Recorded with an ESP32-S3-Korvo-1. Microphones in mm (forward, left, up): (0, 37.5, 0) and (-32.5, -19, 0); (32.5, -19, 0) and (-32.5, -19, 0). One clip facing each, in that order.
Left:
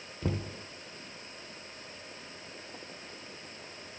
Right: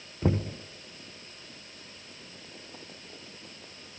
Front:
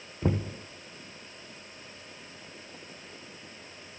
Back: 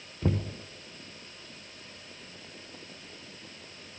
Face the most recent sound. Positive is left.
turn(degrees=-70)